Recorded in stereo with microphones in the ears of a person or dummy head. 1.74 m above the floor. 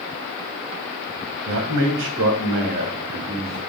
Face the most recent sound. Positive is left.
turn(degrees=-30)  # may be behind; listen again after turning